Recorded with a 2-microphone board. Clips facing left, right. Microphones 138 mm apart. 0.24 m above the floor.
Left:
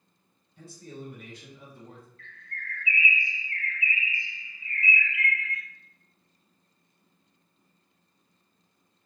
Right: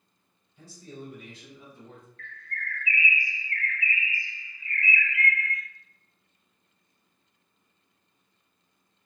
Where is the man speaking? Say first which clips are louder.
Left 1 dB; 55° left (ahead or behind), 1.9 m; by 2.1 s 35° left (ahead or behind), 1.3 m.